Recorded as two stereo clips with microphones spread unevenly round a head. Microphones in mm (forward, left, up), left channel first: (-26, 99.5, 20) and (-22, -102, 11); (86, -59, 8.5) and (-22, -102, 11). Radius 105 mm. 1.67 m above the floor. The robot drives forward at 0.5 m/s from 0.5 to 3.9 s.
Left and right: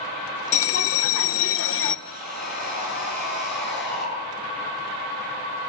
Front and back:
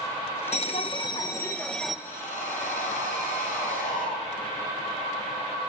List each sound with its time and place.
0.5 s a bell: 75° left, 1.2 m; by 1.9 s 115° left, 1.2 m
2.0 s sawing: 45° left, 9.5 m